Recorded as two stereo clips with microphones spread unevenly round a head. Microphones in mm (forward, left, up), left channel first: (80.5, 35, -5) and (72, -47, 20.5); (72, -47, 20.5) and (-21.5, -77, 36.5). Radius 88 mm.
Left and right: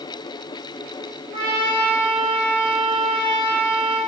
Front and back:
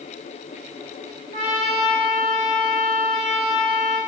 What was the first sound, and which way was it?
A trumpet, 170° right.